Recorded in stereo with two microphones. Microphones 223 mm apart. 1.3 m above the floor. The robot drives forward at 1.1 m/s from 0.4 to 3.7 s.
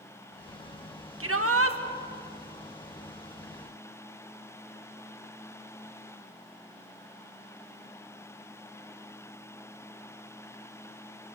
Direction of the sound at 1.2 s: 75° right (ahead or behind).